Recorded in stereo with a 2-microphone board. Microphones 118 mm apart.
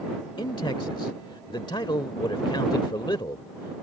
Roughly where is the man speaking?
Left.